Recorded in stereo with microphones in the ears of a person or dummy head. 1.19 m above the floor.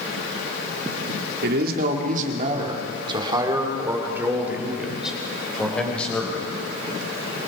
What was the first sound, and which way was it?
A man speaking, 60° right (ahead or behind).